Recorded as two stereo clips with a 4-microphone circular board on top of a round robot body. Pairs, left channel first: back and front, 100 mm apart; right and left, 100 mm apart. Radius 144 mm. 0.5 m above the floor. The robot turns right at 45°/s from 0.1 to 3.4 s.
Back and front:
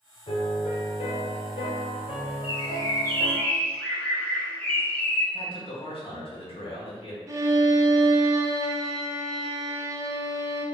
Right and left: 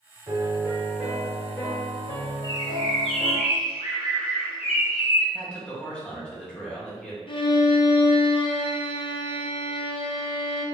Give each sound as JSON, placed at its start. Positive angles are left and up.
{"t": 0.3, "sound": "a piano", "azimuth_deg": 140, "distance_m": 1.3}
{"t": 2.4, "sound": "a bird", "azimuth_deg": -150, "distance_m": 0.8}
{"t": 5.3, "sound": "a man speaking", "azimuth_deg": -170, "distance_m": 1.9}
{"t": 7.3, "sound": "a violin", "azimuth_deg": -55, "distance_m": 0.6}